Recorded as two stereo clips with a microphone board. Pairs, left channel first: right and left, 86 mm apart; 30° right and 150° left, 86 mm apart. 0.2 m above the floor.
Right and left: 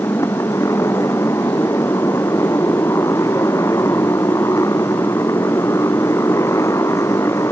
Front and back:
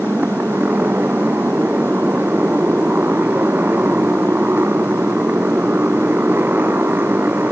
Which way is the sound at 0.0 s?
145° right.